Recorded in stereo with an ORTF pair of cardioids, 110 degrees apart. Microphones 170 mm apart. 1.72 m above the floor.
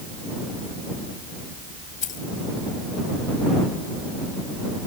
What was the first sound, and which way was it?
Keys jangling, 50° left.